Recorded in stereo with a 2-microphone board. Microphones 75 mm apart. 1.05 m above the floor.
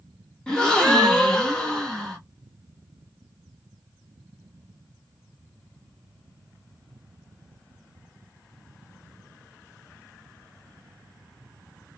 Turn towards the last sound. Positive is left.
turn(degrees=10)  # may be behind; listen again after turning